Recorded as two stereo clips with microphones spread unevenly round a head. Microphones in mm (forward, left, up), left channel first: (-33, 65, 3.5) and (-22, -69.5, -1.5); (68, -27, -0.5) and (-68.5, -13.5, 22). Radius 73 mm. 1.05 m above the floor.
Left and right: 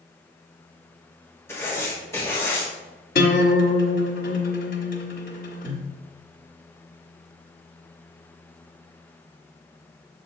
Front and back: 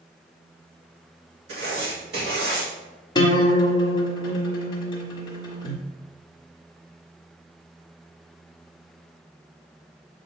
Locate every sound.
1.5 s writing: 165° left, 2.5 m
3.1 s a guitar: 65° left, 1.3 m